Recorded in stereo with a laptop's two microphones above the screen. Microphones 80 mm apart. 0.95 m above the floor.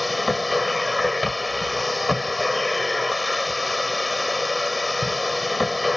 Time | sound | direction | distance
0.0 | a machine running | centre (ahead or behind) | ?